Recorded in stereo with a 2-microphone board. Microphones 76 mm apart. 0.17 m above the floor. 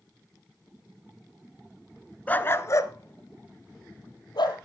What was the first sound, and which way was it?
A dog barking, 20° left (ahead or behind).